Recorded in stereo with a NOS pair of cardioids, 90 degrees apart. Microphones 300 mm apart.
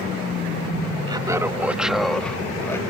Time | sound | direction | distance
1.1 | laughter | 15° right | ?